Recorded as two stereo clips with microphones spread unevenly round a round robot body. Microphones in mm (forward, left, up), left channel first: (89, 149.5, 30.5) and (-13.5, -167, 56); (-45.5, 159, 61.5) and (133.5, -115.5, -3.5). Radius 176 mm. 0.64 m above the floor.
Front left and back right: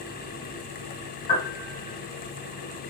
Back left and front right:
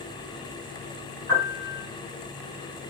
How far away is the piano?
About 2.5 m.